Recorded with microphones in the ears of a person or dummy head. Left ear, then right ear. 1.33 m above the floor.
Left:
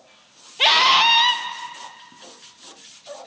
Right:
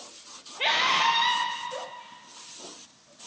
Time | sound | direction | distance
0.6 | a scream | 45° left (ahead or behind) | 1.1 m